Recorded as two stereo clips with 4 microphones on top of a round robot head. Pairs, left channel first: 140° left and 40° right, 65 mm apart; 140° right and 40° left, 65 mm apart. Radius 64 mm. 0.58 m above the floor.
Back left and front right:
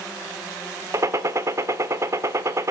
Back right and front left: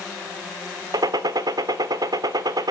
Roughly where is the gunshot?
Ahead.